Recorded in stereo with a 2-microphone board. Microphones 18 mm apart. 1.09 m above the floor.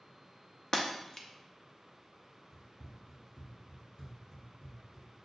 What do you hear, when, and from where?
0.7 s breaking glass: 40° left (ahead or behind), 0.6 m
2.5 s running footsteps: 10° left (ahead or behind), 1.1 m; by 5.3 s 55° left (ahead or behind), 2.5 m